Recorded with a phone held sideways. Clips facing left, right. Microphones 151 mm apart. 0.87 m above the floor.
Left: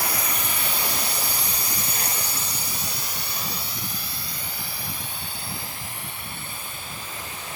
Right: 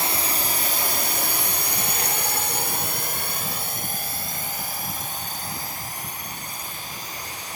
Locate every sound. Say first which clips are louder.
0.0 s a drone: right 2 dB; 25° right (ahead or behind); by 7.6 s 35° right (ahead or behind)